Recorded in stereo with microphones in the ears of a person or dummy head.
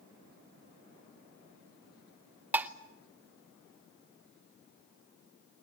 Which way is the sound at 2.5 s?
10° right (ahead or behind).